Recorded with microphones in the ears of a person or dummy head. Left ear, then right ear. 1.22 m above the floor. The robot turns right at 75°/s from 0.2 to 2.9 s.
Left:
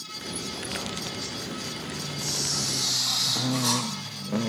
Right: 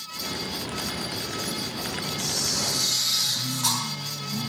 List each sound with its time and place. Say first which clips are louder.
2.2 s a camera shutter: right 1 dB; 175° left, 5.5 m; by 3.8 s 130° right, 5.5 m